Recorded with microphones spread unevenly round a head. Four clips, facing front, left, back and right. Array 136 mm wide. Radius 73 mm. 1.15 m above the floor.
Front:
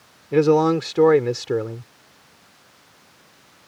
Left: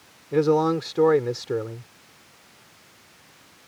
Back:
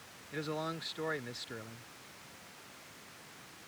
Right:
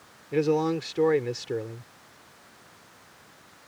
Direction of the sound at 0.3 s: 15° left.